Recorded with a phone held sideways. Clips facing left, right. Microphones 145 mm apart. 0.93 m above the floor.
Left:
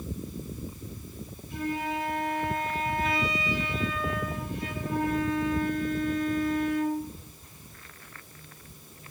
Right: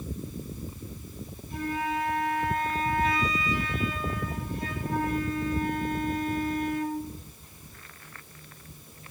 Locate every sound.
1.5 s a flute: 40° right (ahead or behind), 5.5 m